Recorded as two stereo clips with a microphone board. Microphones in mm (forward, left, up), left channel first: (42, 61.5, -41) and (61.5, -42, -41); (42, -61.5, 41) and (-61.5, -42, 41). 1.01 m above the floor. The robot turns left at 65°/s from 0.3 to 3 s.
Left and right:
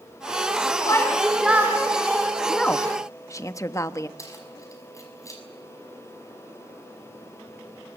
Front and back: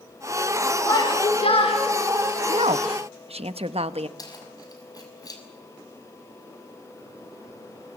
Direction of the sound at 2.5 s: 170° right.